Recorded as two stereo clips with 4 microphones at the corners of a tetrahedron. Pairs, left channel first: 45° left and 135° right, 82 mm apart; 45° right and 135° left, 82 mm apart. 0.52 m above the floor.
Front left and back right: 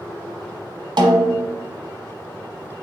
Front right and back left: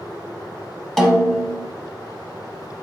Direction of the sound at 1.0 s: 130° right.